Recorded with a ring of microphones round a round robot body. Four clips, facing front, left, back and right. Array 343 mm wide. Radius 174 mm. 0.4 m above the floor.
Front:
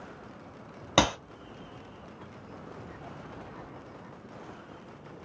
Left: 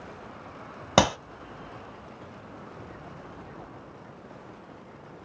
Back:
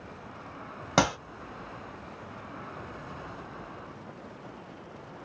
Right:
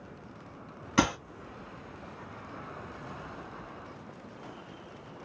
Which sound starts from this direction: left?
A clap, at 1.0 s.